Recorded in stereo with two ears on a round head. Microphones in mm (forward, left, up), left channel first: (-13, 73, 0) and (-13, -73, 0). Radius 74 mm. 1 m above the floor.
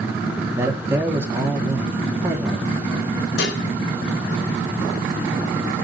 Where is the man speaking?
15° right (ahead or behind), 2.5 m.